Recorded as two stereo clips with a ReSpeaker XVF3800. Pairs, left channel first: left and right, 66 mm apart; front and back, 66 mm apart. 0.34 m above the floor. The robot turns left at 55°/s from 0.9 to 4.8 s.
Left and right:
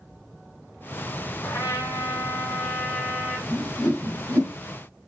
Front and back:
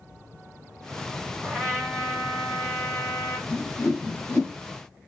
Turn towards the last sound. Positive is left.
turn(degrees=-75)